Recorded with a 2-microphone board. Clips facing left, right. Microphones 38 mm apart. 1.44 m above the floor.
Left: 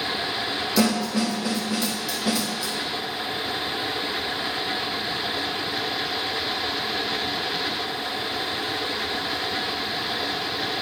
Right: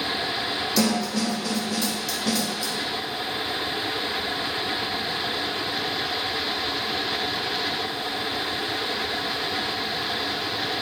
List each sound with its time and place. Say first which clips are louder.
0.8 s a snare drum: left 2 dB; 15° left (ahead or behind), 1.0 m